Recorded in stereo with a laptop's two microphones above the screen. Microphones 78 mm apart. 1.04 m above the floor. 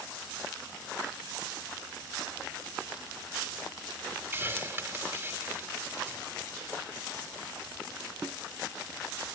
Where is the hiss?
30° right (ahead or behind), 3 m.